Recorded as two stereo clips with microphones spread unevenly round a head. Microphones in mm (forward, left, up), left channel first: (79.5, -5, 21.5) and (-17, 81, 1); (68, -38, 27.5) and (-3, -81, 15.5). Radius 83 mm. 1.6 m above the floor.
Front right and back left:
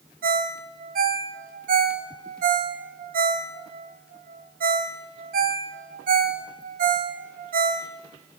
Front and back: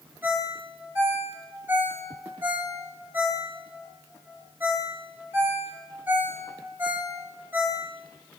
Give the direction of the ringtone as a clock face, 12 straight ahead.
8 o'clock.